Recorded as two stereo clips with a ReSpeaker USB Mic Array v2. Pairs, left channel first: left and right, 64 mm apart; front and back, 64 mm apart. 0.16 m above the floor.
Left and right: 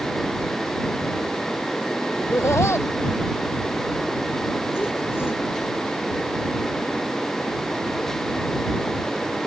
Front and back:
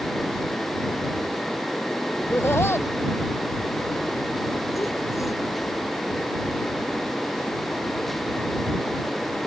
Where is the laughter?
50° left; by 5.4 s 35° left.